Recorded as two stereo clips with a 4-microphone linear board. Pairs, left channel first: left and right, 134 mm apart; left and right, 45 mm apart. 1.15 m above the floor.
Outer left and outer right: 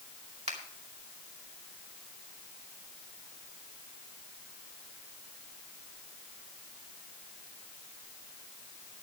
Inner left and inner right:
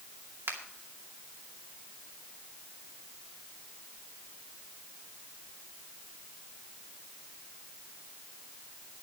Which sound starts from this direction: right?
A finger snap, at 0.5 s.